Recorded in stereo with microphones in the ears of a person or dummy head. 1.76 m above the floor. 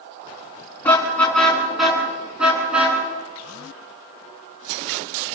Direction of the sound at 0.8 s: 10° left (ahead or behind).